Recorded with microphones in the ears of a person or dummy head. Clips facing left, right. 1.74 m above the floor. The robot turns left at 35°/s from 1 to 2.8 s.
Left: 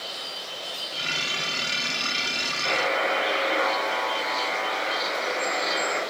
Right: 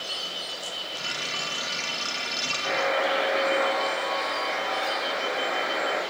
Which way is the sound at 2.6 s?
45° left (ahead or behind).